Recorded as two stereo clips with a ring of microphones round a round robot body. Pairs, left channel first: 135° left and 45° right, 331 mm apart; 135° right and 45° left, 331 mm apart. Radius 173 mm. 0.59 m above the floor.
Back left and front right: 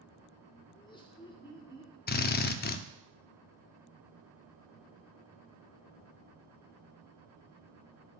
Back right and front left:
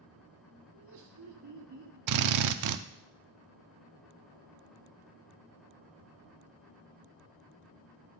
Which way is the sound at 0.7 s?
60° left.